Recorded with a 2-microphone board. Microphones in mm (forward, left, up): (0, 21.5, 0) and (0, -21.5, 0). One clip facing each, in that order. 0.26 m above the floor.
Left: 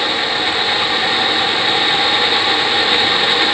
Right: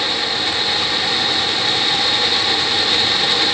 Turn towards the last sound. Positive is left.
No sound to turn to.